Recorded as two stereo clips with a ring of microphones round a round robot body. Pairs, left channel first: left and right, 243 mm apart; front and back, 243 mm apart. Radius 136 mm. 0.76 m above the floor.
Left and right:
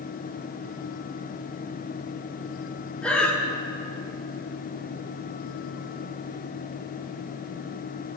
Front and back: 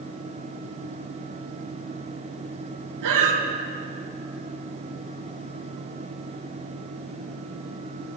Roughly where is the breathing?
Behind.